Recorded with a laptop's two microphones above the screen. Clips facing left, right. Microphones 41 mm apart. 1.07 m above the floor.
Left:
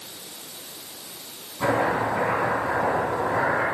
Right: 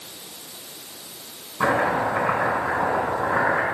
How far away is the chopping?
About 5 m.